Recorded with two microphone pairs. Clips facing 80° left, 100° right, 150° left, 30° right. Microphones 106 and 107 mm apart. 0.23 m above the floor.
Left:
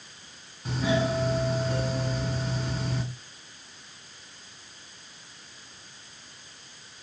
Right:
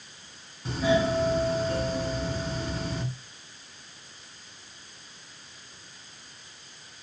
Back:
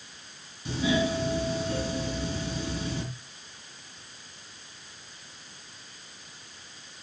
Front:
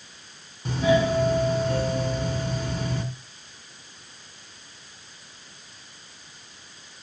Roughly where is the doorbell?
Ahead.